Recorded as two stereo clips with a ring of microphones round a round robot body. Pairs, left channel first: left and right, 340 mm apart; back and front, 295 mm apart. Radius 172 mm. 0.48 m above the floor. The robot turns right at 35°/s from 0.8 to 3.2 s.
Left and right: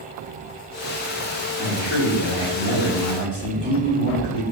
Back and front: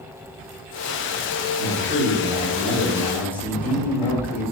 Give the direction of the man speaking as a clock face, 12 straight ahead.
11 o'clock.